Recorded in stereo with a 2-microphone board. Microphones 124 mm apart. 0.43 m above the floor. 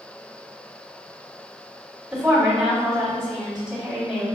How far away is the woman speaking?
About 1.9 m.